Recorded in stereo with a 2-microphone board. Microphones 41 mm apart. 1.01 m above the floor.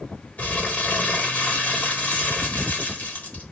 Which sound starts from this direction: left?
Crumpling, at 0.4 s.